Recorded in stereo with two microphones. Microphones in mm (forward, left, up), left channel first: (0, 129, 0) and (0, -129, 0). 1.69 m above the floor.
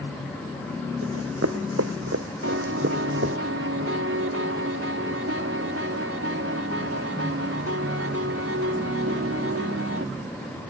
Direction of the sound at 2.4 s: 60° right (ahead or behind).